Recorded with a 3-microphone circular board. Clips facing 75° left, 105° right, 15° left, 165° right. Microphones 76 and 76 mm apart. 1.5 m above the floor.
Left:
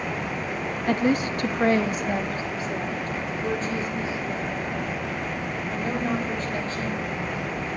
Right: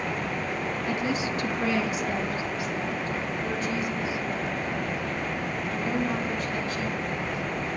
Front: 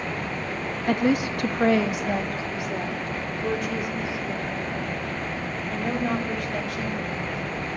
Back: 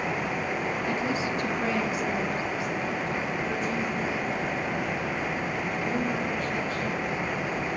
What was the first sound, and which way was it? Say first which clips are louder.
A woman speaking: left 8 dB, front 10 dB; 45° left.